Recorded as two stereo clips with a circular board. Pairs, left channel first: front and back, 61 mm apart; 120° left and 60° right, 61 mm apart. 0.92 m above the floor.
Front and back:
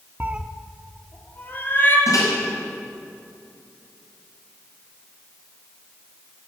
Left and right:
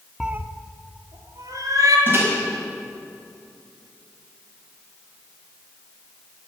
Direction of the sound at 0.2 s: 140° right.